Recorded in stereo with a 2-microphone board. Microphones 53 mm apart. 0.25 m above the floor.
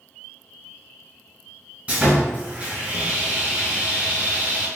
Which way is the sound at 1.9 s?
30° right (ahead or behind).